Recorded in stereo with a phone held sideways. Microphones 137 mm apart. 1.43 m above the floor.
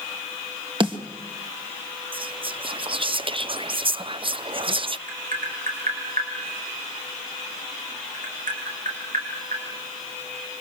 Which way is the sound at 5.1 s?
80° right.